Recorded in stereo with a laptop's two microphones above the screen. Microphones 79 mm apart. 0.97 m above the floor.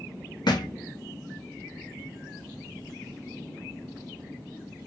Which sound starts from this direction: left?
A thud, at 0.5 s.